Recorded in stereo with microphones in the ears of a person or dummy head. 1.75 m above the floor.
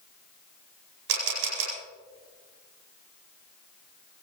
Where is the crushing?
I don't hear crushing.